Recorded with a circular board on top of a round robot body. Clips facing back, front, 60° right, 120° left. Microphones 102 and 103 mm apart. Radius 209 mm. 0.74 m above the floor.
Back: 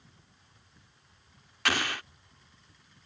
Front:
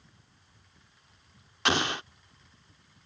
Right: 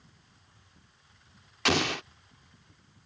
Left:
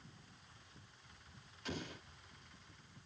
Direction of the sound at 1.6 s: 70° right.